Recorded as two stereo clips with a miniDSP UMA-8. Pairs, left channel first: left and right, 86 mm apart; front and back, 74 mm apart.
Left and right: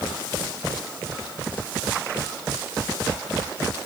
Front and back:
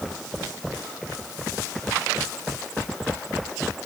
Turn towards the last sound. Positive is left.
No sound to turn to.